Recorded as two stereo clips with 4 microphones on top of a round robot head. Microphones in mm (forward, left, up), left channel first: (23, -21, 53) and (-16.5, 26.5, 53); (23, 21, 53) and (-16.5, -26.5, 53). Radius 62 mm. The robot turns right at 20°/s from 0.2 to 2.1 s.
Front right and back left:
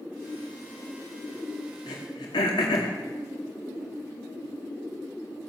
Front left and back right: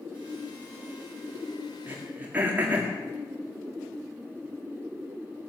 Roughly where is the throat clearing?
Right.